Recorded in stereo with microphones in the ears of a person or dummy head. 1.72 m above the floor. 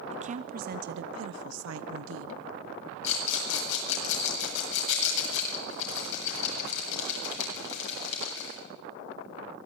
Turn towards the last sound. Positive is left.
turn(degrees=75)  # may be behind; listen again after turning